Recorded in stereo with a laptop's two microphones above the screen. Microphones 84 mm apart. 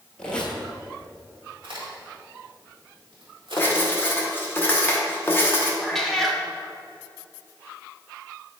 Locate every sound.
0.2 s a squeak: 10° left (ahead or behind), 1.3 m
1.6 s a crack: 75° right (ahead or behind), 1.7 m
3.6 s writing: 25° left (ahead or behind), 0.9 m
5.8 s a cat meowing: 5° left (ahead or behind), 0.6 m